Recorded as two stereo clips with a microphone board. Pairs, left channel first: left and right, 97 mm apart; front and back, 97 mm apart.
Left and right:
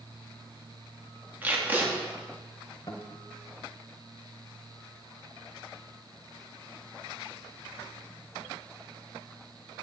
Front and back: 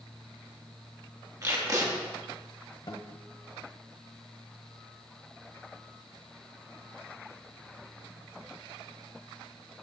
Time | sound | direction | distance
1.4 | tape being pulled | 150° right | 1.3 m
2.9 | a guitar | 35° left | 1.0 m